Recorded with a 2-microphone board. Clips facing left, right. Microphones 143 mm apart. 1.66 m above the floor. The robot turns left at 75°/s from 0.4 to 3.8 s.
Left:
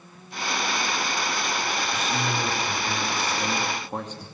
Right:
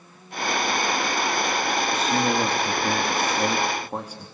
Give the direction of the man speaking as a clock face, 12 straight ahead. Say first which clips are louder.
Right 7 dB; 1 o'clock.